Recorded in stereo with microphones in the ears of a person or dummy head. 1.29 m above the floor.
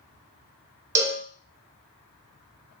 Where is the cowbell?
15° right (ahead or behind), 0.5 m.